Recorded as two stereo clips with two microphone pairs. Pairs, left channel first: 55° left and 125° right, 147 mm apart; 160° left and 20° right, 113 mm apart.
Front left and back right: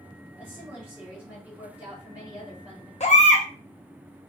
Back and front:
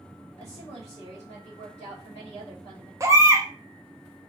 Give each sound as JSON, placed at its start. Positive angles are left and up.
{"t": 0.4, "sound": "a woman speaking", "azimuth_deg": 155, "distance_m": 1.6}
{"t": 3.0, "sound": "a baby crying", "azimuth_deg": 35, "distance_m": 0.6}